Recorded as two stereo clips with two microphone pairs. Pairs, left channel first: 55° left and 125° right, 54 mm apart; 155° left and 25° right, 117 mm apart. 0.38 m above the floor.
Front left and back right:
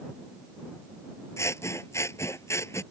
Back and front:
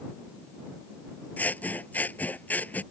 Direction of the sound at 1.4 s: 80° left.